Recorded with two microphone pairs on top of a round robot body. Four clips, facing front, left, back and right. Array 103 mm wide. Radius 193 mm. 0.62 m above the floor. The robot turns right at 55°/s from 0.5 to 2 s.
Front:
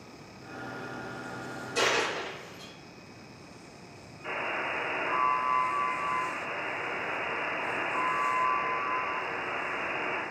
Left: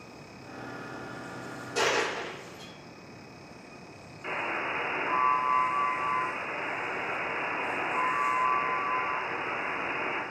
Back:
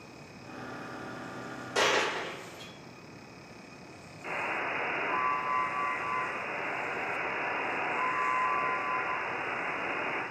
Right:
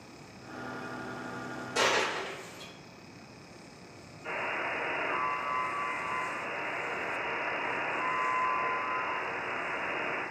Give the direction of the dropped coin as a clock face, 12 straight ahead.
5 o'clock.